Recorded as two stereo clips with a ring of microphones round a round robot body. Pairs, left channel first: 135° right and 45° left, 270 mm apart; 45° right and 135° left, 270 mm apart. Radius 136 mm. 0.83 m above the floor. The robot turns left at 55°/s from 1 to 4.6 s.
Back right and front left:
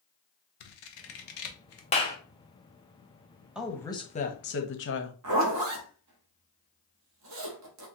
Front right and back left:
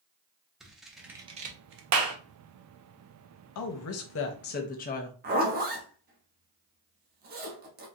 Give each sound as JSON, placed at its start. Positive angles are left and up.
{"t": 0.6, "sound": "scissors", "azimuth_deg": -135, "distance_m": 0.7}
{"t": 1.9, "sound": "a clap", "azimuth_deg": 160, "distance_m": 0.7}
{"t": 3.5, "sound": "a woman speaking", "azimuth_deg": -40, "distance_m": 0.7}
{"t": 5.2, "sound": "a zipper", "azimuth_deg": 75, "distance_m": 0.9}